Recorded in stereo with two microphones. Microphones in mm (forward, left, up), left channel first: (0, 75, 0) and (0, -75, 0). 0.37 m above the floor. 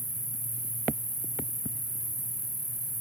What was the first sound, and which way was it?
An insect, 60° right (ahead or behind).